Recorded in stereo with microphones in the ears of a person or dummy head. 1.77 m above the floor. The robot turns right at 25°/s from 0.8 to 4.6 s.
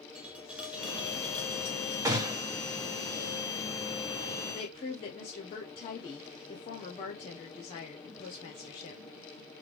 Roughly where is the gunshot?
Centre.